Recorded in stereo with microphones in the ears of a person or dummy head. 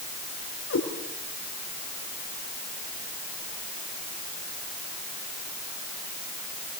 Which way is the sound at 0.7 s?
85° left.